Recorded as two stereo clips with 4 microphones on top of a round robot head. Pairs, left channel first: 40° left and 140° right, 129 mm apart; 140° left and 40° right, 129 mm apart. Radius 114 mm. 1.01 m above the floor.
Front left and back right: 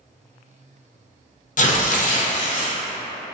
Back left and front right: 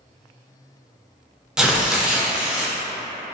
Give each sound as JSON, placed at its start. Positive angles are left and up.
{"t": 1.6, "sound": "tearing paper", "azimuth_deg": 45, "distance_m": 0.5}